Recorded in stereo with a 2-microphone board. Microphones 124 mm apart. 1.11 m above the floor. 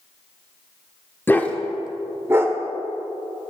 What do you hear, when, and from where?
1.3 s a dog barking: 15° left (ahead or behind), 0.7 m; by 2.6 s 20° right (ahead or behind), 1.1 m